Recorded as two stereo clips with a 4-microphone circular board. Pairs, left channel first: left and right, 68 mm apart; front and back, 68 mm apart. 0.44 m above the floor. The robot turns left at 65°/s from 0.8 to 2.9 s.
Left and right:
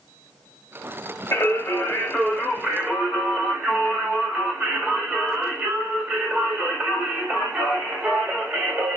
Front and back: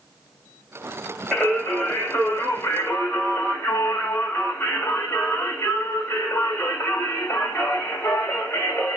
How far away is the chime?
No chime in this recording.